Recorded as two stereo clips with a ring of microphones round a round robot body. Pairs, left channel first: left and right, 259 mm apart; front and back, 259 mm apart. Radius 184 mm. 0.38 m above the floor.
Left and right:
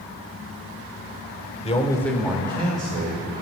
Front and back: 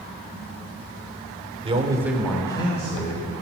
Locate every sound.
1.6 s a man speaking: 130° left, 1.2 m; by 3.3 s 50° right, 1.8 m